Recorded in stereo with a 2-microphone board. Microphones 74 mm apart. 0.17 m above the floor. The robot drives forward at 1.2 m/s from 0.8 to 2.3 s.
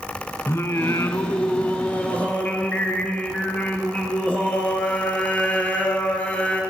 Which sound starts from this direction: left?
Singing, at 0.5 s.